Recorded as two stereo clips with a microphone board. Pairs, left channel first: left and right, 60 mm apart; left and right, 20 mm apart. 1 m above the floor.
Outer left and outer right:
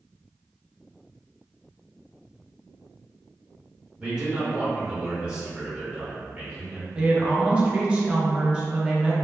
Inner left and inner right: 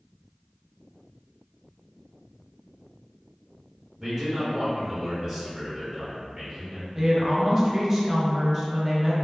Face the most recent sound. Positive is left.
turn(degrees=-15)  # may be behind; listen again after turning